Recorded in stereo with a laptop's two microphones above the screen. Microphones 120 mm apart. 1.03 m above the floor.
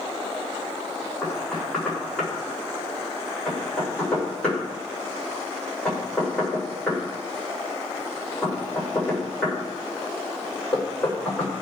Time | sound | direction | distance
1.2 | knocking | 10° left (ahead or behind) | 3 m